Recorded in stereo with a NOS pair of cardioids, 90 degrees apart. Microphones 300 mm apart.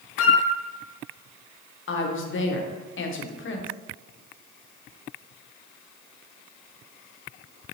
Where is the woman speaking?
45° left, 0.8 m.